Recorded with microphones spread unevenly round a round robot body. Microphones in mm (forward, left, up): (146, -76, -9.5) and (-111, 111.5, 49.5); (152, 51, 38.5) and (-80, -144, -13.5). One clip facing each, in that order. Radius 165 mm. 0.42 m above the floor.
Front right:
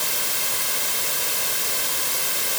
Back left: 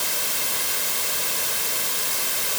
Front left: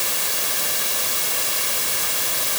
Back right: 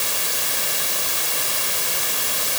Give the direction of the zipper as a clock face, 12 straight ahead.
No zipper in this recording.